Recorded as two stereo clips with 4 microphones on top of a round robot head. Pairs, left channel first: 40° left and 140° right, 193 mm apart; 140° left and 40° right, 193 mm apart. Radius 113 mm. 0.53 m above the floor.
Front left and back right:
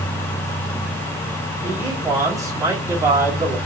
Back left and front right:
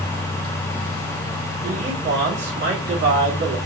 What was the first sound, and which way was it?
A man speaking, 65° right.